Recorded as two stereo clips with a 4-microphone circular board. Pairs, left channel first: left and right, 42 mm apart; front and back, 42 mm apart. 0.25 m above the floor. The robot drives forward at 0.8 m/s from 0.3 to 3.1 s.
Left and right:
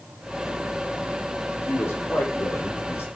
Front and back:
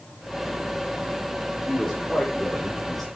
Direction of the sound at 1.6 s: 80° left.